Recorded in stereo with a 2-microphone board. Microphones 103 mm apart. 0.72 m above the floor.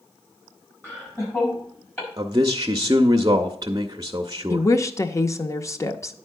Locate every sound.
0.8 s laughter: 20° left (ahead or behind), 4.5 m; by 2.1 s 30° left (ahead or behind), 5.5 m
2.2 s a man speaking: 35° right (ahead or behind), 0.6 m
4.5 s a woman speaking: 25° left (ahead or behind), 0.6 m